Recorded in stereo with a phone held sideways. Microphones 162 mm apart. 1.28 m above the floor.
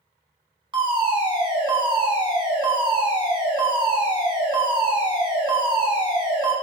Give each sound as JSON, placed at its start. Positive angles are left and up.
{"t": 0.7, "sound": "a fire alarm", "side_deg": -30, "distance_m": 1.1}